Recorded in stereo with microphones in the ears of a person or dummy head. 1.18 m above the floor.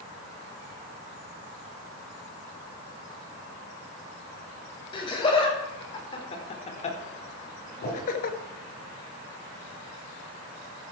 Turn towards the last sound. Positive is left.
turn(degrees=40)  # may be behind; listen again after turning